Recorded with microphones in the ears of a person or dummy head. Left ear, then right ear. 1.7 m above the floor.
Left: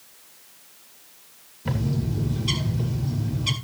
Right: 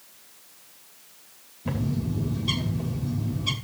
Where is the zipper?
I don't hear a zipper.